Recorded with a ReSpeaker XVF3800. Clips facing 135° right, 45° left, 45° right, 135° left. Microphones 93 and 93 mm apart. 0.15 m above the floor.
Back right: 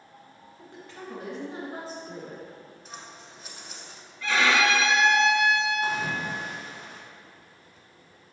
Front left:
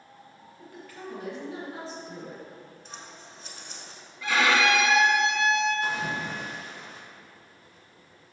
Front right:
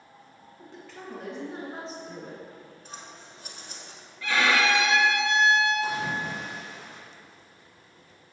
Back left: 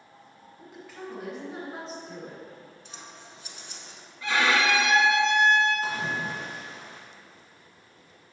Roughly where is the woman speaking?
Behind right.